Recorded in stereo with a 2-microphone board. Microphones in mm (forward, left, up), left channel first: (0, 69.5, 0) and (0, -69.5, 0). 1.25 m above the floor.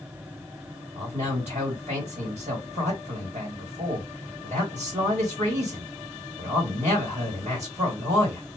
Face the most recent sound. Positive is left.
turn(degrees=-65)  # may be behind; listen again after turning